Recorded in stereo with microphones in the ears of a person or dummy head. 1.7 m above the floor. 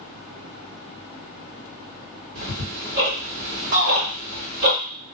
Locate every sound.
2.4 s ticking: 60° right (ahead or behind), 1.4 m
3.7 s a shout: 60° right (ahead or behind), 1.3 m